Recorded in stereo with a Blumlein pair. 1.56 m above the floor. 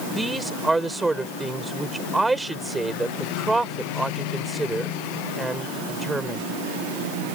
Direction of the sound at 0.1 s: 5° right.